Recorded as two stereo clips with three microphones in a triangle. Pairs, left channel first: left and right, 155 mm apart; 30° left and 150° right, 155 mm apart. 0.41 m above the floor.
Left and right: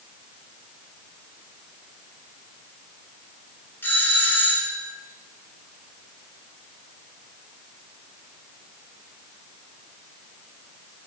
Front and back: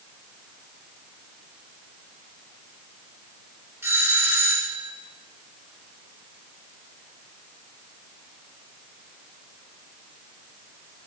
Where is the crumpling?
No crumpling in this recording.